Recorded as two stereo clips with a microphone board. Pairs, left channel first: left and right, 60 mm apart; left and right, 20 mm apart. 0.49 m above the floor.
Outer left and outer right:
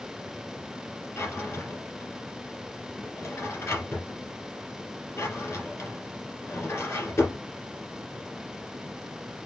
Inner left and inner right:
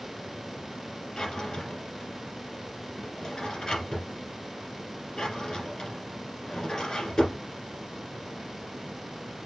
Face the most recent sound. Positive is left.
turn(degrees=40)  # may be behind; listen again after turning